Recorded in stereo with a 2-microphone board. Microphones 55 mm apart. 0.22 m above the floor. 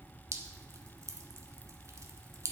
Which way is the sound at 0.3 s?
70° right (ahead or behind).